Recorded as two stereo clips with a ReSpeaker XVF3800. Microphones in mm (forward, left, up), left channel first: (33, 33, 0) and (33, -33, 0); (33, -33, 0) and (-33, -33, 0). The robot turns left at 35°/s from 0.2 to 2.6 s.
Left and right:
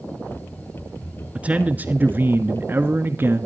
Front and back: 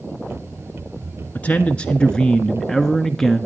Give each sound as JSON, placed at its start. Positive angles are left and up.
{"t": 1.4, "sound": "a man speaking", "azimuth_deg": -40, "distance_m": 1.2}